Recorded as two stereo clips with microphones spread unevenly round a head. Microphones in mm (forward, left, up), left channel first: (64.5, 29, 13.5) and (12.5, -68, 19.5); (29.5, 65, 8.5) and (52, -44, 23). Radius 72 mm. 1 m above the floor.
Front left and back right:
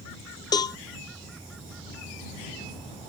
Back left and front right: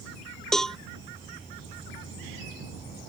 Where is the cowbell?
25° left.